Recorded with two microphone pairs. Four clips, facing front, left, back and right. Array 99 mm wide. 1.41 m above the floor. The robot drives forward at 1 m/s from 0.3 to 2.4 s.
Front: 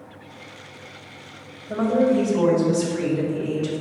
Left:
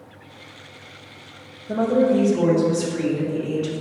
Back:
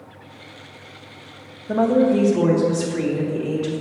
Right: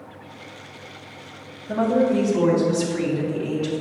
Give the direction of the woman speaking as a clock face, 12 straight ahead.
6 o'clock.